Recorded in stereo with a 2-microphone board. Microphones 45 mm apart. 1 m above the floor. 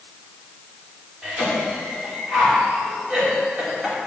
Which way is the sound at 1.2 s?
20° right (ahead or behind).